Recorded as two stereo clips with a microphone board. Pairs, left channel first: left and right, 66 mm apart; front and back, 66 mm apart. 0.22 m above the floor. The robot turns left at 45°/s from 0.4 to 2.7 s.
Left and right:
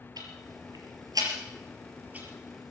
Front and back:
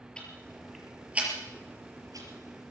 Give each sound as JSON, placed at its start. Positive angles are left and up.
{"t": 0.2, "sound": "ticking", "azimuth_deg": -75, "distance_m": 4.5}